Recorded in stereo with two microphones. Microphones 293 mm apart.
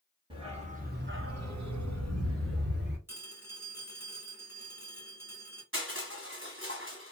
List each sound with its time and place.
0.3 s a dog barking: 15° right (ahead or behind), 1.1 m; by 3.0 s 35° right (ahead or behind), 1.2 m
3.1 s a phone ringing: 10° right (ahead or behind), 1.4 m
5.7 s crushing: 40° right (ahead or behind), 1.4 m